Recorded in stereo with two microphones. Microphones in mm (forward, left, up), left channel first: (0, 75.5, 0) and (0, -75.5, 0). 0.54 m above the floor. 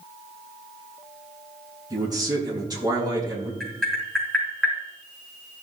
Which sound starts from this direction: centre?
Tapping, at 3.6 s.